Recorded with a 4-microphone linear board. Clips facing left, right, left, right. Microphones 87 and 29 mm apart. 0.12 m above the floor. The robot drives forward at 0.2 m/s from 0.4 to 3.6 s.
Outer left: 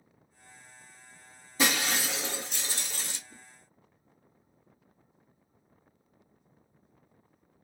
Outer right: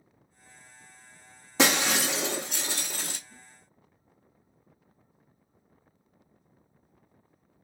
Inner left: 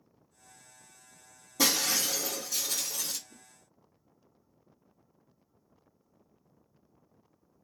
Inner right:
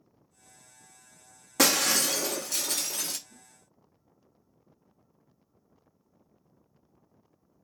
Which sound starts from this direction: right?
Breaking glass, at 1.6 s.